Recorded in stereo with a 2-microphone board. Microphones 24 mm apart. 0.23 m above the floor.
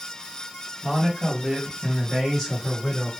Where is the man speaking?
20° left (ahead or behind), 1.5 m; by 3.1 s 15° left (ahead or behind), 2.5 m.